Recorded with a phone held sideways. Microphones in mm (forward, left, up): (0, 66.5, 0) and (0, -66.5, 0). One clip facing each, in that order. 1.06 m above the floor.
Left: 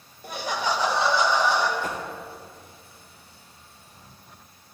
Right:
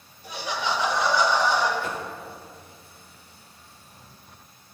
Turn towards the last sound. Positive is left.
turn(degrees=40)  # may be behind; listen again after turning